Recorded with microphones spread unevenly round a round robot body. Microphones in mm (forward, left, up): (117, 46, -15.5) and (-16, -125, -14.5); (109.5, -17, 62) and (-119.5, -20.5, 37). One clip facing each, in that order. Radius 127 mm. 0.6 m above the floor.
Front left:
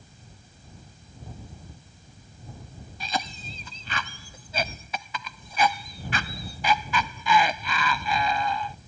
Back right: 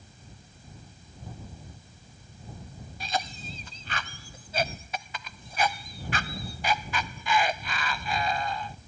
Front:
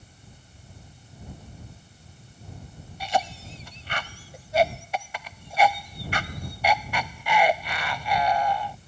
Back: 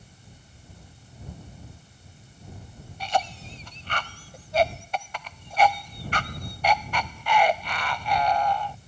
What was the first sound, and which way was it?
A cough, 85° left.